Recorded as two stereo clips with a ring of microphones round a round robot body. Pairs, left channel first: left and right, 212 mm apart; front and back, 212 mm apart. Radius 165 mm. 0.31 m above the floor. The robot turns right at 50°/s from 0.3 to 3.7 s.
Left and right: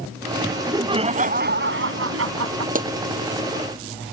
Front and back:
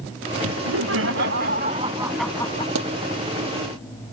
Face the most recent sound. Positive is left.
turn(degrees=-95)